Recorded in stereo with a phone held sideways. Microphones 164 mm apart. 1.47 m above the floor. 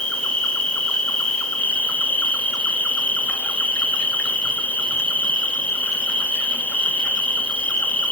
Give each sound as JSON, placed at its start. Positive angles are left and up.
{"t": 0.0, "sound": "an insect", "side_deg": 5, "distance_m": 1.2}